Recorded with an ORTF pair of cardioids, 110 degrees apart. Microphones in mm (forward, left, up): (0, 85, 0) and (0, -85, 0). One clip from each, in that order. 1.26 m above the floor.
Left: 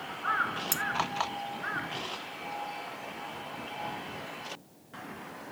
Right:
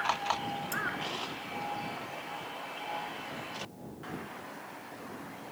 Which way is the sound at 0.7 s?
70° left.